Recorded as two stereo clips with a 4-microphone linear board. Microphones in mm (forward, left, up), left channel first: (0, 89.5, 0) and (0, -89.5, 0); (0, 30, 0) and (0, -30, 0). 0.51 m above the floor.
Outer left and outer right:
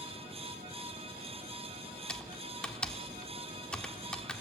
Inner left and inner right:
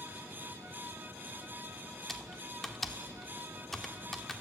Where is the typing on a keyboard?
5° left (ahead or behind), 1.0 m.